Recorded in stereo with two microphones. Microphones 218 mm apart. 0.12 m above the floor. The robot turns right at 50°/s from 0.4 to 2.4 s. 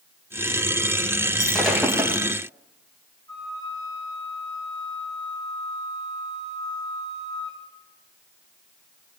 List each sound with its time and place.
1.4 s breaking glass: 165° left, 6.5 m; by 2.2 s 150° right, 6.5 m
3.3 s a flute: 20° left (ahead or behind), 6 m